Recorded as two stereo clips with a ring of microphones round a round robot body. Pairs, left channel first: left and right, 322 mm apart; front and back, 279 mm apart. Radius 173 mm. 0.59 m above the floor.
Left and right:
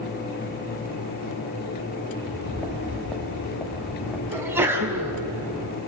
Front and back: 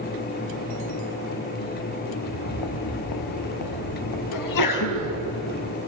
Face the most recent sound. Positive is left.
turn(degrees=-5)